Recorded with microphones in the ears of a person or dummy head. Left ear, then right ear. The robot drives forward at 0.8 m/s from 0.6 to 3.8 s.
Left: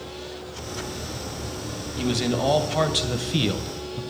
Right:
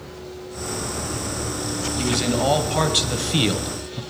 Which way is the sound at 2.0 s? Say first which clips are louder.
Right 2 dB; 5° right (ahead or behind).